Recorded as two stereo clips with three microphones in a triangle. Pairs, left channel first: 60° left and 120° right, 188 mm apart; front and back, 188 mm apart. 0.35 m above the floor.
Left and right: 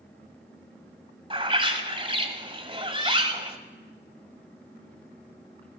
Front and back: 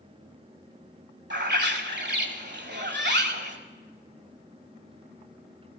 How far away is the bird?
About 1.3 m.